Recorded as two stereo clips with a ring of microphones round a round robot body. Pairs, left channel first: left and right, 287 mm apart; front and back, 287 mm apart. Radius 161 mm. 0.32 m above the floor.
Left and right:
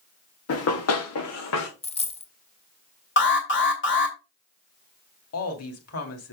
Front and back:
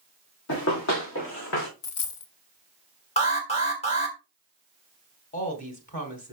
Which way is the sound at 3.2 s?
60° left.